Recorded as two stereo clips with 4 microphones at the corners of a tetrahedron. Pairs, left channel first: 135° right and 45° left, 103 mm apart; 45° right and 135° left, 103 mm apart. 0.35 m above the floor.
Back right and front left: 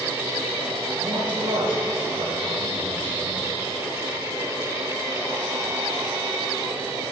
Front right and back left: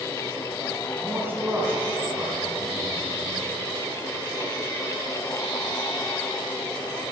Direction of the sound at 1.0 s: 70° left.